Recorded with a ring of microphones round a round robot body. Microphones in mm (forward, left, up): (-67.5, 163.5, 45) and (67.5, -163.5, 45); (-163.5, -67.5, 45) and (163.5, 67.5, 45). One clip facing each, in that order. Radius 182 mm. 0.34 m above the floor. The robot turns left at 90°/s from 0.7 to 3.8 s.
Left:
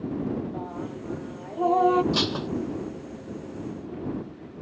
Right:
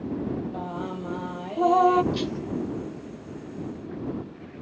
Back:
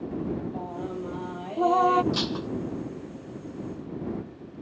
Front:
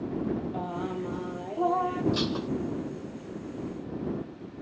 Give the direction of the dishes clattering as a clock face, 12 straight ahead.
8 o'clock.